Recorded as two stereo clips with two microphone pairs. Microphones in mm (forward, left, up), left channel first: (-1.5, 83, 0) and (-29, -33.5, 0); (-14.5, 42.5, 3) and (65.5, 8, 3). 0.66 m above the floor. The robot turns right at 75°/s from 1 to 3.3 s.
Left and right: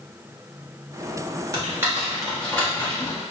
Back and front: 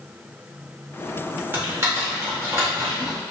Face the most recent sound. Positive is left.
turn(degrees=65)